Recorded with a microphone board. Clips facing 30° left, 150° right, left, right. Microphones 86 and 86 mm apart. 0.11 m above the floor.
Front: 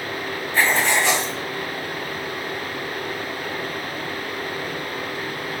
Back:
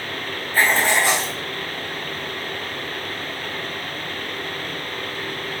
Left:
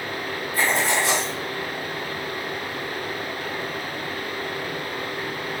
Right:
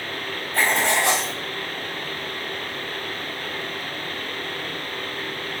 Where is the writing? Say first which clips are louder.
Back 1 dB, right 1 dB; 70° right, 4.5 m.